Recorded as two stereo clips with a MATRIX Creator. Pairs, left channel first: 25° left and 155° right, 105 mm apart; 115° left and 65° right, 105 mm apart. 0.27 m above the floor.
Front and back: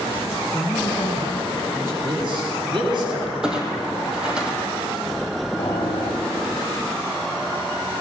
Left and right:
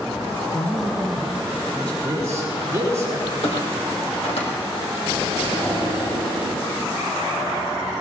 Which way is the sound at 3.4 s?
120° left.